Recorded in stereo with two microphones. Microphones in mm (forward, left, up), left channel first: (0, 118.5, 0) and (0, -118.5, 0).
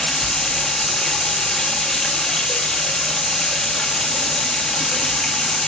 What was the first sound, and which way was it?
Running water, centre (ahead or behind).